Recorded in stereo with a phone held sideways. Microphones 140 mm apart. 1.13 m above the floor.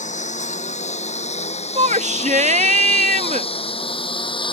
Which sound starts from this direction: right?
A shout, at 1.8 s.